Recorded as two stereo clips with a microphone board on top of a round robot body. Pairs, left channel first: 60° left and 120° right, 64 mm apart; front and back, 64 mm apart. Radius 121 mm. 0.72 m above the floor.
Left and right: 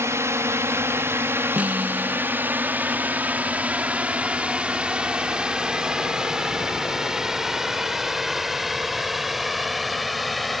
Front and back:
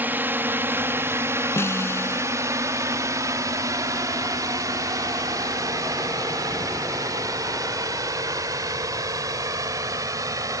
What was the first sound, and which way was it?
A drone, 135° right.